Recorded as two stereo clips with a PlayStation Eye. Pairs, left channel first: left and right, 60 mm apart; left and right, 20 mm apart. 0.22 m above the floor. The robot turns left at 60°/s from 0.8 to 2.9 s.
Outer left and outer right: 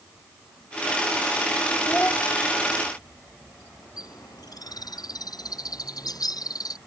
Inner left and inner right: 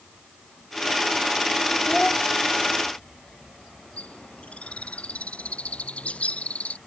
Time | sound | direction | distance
1.9 | a child speaking | 35° left (ahead or behind) | ?
4.0 | a bird | 90° left | ?